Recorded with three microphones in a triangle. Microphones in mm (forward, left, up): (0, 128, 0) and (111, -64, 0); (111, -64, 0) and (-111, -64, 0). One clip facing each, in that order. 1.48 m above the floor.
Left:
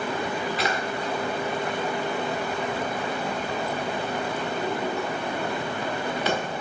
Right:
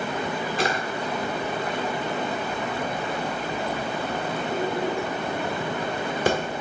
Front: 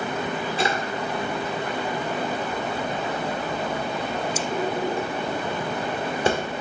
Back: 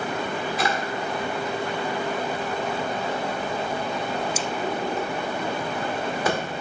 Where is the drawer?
55° right, 1.5 m.